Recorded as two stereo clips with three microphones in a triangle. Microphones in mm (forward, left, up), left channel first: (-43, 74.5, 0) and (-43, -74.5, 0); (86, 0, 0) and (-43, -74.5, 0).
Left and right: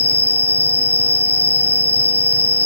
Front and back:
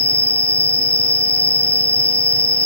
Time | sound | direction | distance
0.0 | an insect | 125° right | 0.7 m